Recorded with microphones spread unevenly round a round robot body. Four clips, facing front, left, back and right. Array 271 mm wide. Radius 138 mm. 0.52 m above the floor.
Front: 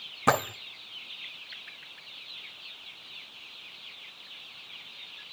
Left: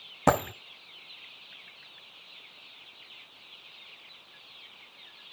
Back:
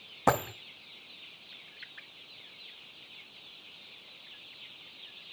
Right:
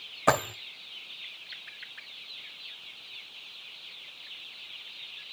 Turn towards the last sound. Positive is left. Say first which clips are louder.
# left 1 dB, front 2 dB
turn(degrees=95)